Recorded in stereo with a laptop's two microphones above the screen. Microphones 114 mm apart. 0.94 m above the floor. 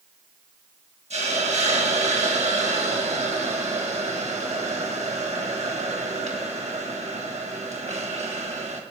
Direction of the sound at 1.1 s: 75° right (ahead or behind).